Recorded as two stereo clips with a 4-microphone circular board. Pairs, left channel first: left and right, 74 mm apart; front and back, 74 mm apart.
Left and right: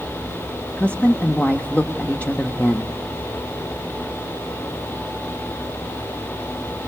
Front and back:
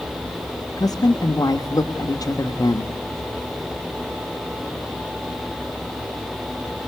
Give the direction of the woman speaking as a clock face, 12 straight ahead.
11 o'clock.